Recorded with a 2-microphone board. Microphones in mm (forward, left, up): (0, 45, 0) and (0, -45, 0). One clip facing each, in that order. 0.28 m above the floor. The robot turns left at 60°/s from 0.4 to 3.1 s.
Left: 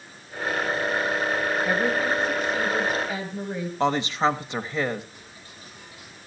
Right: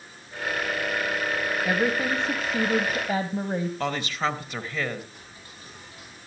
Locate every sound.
1.6 s a woman speaking: 15° right, 1.3 m; by 3.7 s 100° right, 1.3 m
3.8 s a woman speaking: 25° left (ahead or behind), 1.2 m
5.1 s ticking: 45° right (ahead or behind), 10 m